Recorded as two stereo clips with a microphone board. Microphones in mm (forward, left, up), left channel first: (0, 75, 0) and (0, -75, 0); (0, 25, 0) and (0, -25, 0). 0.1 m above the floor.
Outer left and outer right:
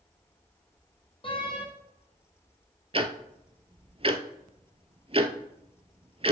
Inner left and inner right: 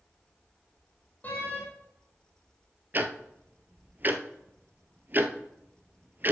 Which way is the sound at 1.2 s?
35° left (ahead or behind).